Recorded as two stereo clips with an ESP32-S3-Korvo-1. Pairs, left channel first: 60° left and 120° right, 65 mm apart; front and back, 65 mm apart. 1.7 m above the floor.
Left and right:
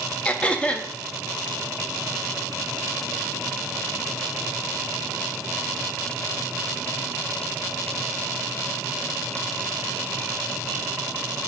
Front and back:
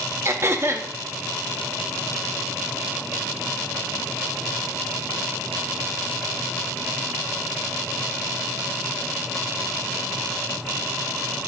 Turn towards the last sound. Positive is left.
turn(degrees=130)